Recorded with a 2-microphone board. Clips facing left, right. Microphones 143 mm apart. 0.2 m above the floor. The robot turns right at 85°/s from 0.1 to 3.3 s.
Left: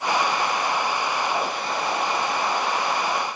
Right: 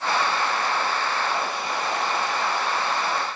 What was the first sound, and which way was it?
Only background noise.